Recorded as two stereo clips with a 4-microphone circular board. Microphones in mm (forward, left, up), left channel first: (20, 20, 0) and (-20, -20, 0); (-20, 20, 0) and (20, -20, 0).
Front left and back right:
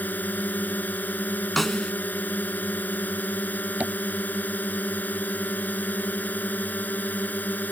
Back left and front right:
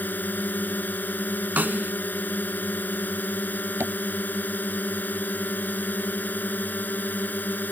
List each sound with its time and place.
0.0 s a drone: 90° left
1.6 s a snare drum: 40° right
3.8 s tapping: 80° right